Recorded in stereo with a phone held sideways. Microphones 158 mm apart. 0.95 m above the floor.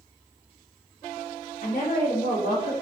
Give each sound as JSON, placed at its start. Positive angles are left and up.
{"t": 1.6, "sound": "a woman speaking", "side_deg": 65, "distance_m": 1.0}